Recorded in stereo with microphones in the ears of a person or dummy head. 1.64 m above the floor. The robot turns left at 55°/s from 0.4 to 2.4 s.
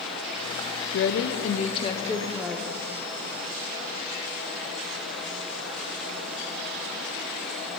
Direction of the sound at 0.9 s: 80° left.